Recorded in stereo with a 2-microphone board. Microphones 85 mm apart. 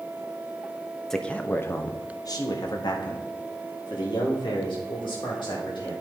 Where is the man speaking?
5° left (ahead or behind), 0.8 m; by 5.9 s 75° left (ahead or behind), 3 m.